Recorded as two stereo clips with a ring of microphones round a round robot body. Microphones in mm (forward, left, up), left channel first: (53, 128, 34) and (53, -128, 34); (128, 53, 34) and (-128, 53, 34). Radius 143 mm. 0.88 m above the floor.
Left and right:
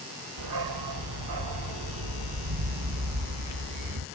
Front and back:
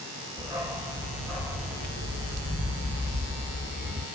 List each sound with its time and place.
0.4 s a dog barking: 100° right, 1.5 m; by 4.0 s 95° right, 3.5 m